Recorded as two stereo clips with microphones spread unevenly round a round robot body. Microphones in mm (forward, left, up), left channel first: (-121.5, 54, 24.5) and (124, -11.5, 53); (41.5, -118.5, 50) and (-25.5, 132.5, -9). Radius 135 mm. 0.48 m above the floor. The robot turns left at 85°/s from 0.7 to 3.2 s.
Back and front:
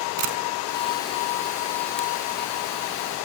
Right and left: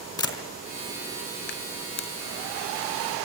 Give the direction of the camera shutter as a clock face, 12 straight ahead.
12 o'clock.